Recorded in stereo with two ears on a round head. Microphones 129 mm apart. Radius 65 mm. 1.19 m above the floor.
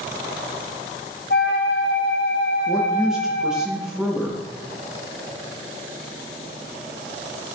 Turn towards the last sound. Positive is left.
turn(degrees=-5)  # may be behind; listen again after turning